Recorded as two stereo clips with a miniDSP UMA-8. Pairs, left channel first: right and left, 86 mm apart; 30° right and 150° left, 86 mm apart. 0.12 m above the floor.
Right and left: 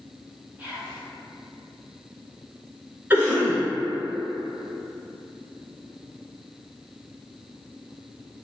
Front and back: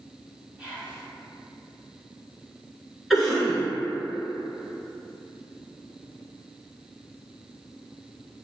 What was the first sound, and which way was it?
Whispering, 120° left.